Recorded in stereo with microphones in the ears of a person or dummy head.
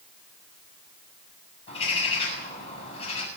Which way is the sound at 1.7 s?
35° left (ahead or behind).